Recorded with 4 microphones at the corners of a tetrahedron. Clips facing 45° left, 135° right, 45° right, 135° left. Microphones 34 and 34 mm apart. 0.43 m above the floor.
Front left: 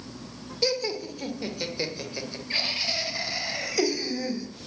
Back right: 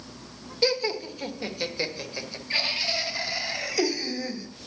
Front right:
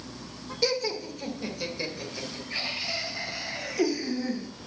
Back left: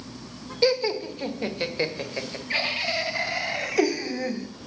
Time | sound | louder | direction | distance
0.6 | laughter | back right 2 dB, back left 6 dB | 170° left | 1.5 m